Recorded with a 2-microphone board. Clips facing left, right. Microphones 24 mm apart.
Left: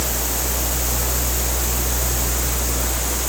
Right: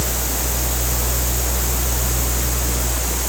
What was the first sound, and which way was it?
Only background noise.